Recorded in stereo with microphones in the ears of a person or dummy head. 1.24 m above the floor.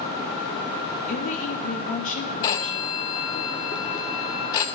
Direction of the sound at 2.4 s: 20° left (ahead or behind).